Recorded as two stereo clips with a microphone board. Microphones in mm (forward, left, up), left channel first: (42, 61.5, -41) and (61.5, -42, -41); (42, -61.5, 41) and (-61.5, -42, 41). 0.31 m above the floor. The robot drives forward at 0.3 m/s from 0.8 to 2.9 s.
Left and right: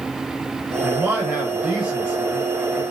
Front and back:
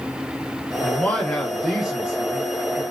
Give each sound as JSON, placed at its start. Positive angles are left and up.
{"t": 0.8, "sound": "a man speaking", "azimuth_deg": -40, "distance_m": 0.8}